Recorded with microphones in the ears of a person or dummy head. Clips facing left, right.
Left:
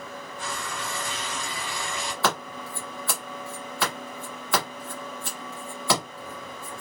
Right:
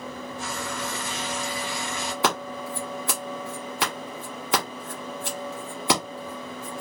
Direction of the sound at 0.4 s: 25° right (ahead or behind).